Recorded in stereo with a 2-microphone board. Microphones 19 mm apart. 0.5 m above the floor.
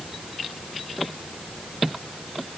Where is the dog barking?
No dog barking in this recording.